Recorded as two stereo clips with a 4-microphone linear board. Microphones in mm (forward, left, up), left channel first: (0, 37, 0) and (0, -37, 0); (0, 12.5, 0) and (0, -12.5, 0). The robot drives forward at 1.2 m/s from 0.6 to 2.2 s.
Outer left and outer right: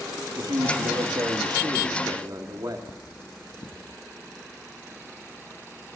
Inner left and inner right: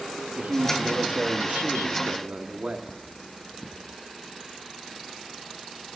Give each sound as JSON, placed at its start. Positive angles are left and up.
{"t": 0.4, "sound": "a man speaking", "side_deg": -80, "distance_m": 3.0}
{"t": 2.9, "sound": "cutlery clinking", "side_deg": 70, "distance_m": 2.0}